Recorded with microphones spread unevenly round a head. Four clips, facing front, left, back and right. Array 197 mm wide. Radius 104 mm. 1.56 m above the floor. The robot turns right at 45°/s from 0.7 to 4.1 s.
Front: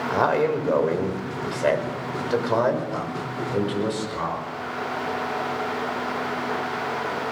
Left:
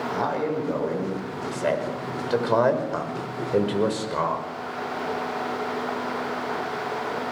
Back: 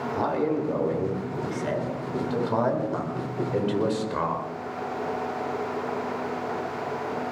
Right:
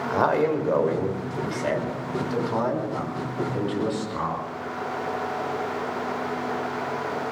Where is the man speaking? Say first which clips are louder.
Right 6 dB, front 5 dB; 25° right, 6 m; by 4.5 s 125° left, 6 m.